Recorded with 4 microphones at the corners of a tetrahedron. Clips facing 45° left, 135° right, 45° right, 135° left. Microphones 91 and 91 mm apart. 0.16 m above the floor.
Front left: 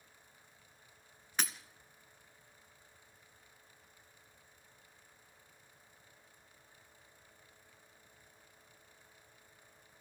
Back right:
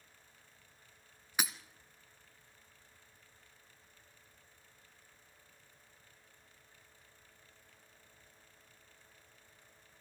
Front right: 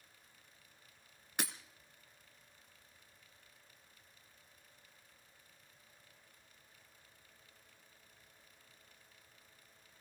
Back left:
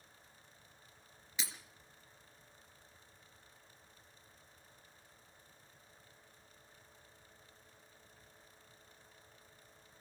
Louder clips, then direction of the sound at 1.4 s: Back right 1 dB, front right 5 dB; 55° right.